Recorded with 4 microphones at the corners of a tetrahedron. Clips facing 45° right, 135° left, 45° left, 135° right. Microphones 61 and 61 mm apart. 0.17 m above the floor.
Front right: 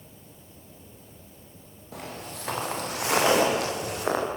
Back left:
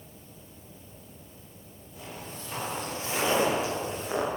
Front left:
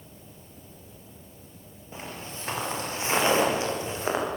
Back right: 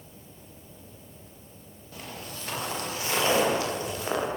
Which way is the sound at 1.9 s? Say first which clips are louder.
Front right 4 dB, front left 2 dB; 20° right.